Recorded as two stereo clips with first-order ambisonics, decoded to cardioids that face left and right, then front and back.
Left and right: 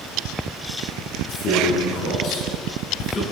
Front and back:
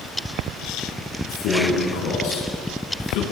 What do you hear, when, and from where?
1.3 s a man speaking: 35° left, 9 m; by 3.2 s 20° left, 9 m